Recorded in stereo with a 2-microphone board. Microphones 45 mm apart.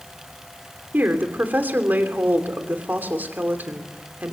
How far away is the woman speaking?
About 3 m.